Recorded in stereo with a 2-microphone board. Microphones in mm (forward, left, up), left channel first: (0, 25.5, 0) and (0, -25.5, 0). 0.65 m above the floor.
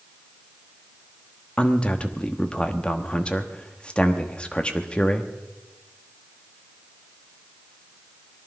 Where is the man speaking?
20° left (ahead or behind), 1.1 m.